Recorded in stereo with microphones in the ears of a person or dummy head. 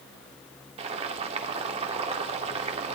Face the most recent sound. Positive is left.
turn(degrees=-40)  # may be behind; listen again after turning